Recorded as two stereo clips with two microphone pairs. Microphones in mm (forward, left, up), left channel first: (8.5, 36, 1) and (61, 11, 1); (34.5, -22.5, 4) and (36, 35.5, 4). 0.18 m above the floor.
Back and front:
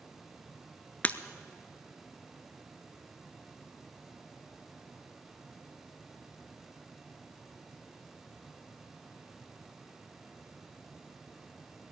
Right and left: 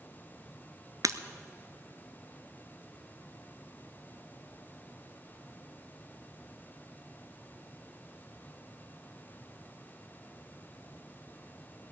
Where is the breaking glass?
90° left, 0.6 m.